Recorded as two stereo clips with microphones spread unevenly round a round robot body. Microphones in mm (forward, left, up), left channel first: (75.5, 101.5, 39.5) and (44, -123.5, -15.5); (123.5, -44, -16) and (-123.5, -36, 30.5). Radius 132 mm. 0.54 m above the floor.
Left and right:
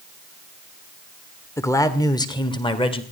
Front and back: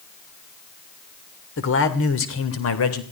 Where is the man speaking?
5° right, 2 m; by 3.0 s 10° left, 3 m.